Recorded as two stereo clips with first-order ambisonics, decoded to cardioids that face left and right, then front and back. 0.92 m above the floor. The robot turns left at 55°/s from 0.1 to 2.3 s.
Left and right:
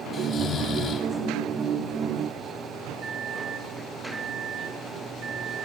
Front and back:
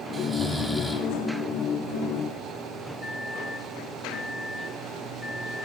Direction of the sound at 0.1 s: 115° left.